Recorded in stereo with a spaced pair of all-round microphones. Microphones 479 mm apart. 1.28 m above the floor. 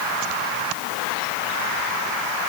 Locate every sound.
Only background noise.